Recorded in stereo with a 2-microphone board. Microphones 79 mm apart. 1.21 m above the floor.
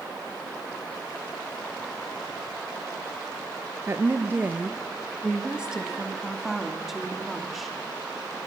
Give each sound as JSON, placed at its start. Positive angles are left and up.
{"t": 3.9, "sound": "a woman speaking", "side_deg": -35, "distance_m": 1.0}